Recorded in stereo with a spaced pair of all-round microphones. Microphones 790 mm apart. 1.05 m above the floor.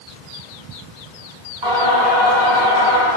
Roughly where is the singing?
Right.